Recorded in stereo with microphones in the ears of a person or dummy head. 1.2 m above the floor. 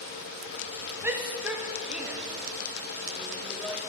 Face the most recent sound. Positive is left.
turn(degrees=0)  # may be behind; listen again after turning